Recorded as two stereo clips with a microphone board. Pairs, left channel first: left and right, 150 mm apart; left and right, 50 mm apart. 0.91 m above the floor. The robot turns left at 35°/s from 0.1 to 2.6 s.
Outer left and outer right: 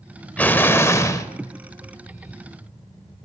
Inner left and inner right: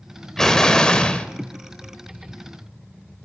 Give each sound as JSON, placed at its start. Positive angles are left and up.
{"t": 0.4, "sound": "an explosion", "side_deg": 10, "distance_m": 0.7}